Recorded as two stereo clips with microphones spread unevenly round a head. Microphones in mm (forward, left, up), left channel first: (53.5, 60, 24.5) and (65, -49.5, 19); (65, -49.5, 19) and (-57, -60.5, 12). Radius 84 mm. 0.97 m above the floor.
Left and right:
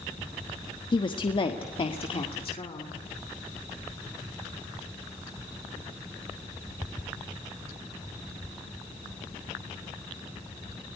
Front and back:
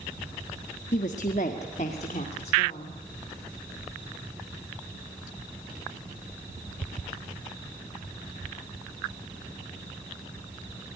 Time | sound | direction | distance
0.9 | a woman speaking | 45° left | 1.2 m